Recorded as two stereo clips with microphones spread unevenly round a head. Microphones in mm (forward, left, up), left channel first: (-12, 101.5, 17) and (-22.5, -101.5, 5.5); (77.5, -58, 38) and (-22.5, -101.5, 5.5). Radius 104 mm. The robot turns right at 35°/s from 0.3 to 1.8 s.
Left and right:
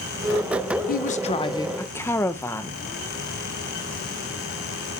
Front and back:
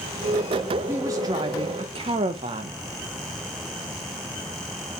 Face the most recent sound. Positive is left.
turn(degrees=165)